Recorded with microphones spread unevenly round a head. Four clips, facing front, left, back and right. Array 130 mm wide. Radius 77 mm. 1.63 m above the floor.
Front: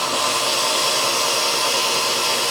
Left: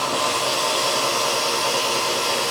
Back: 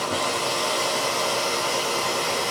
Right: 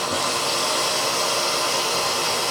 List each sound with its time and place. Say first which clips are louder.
0.0 s running water: left 2 dB, front 3 dB; 130° right, 6 m